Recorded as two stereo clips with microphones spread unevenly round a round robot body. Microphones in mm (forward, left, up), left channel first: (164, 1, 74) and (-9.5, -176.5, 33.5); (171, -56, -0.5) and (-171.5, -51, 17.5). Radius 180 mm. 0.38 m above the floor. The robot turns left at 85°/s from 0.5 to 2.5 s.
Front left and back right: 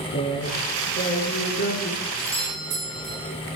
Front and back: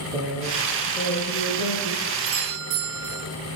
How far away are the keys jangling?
I don't hear keys jangling.